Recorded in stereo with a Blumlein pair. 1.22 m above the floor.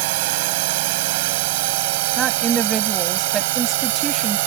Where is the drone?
50° right.